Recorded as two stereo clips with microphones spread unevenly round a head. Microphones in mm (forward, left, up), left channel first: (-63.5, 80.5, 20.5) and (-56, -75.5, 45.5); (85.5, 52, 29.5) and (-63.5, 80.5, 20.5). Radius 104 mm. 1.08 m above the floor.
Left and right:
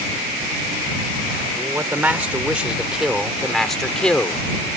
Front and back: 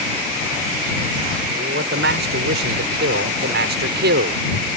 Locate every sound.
1.6 s a man speaking: 165° right; by 4.4 s 175° left